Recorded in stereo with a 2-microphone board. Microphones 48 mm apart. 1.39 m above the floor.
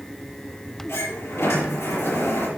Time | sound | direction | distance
0.9 | a sliding door | 70° left (ahead or behind) | 4 m